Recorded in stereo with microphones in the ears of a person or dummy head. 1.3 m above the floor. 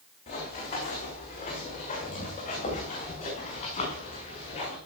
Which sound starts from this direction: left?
Running footsteps, at 0.3 s.